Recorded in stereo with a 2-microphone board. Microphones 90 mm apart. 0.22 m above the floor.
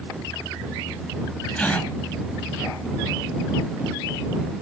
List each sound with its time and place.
1.6 s a gasp: 15° left (ahead or behind)